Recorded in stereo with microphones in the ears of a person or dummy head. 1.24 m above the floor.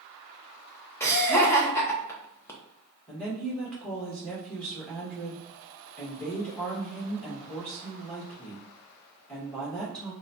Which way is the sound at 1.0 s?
20° left (ahead or behind).